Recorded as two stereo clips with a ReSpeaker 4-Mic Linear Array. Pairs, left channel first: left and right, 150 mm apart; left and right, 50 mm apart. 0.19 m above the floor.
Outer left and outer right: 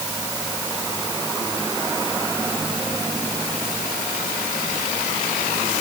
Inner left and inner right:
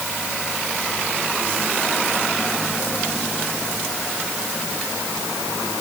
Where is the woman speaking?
No woman speaking in this recording.